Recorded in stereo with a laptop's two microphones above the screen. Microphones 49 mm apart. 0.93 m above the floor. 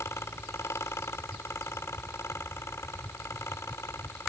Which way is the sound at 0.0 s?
70° left (ahead or behind).